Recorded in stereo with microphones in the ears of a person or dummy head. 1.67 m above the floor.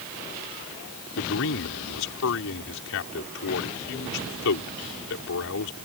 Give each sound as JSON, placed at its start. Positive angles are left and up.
{"t": 1.2, "sound": "a man speaking", "side_deg": 65}